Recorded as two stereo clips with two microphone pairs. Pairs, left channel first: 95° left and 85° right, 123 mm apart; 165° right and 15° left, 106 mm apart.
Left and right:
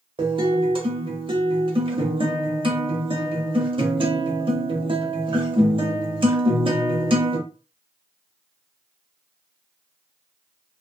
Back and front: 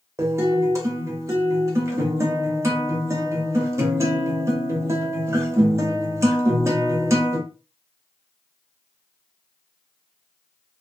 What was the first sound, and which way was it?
A guitar, 45° right.